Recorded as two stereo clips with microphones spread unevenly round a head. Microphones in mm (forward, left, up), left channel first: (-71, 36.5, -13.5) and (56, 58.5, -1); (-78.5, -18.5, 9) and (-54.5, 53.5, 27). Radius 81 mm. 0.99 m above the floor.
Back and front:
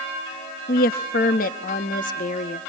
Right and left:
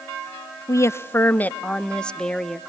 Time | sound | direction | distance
0.7 | a woman speaking | 150° right | 0.9 m